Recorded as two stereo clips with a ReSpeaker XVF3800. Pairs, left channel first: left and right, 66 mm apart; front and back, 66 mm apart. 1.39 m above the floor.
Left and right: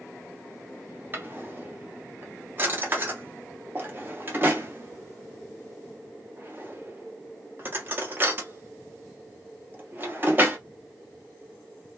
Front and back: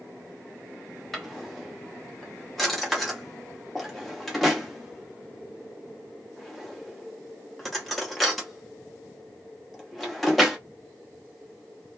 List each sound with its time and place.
1.1 s a drawer: 85° right, 0.8 m